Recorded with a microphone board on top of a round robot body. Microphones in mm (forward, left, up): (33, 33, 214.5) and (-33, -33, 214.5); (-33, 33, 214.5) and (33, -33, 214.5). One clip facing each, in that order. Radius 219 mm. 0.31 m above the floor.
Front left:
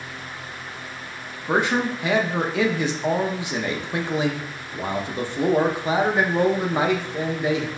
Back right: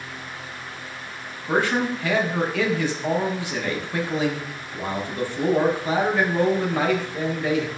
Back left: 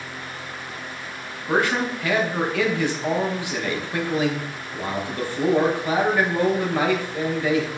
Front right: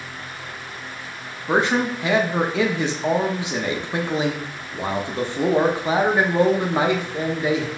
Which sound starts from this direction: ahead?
A man speaking, at 1.5 s.